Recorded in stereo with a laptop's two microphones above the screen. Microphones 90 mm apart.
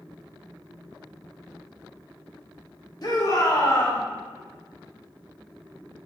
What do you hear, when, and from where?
3.0 s a shout: 45° left (ahead or behind), 1.4 m; by 4.0 s 20° left (ahead or behind), 0.8 m